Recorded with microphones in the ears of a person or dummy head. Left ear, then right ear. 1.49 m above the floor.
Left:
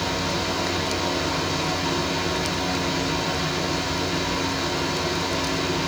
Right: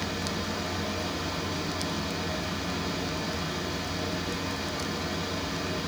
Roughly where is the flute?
I don't hear a flute.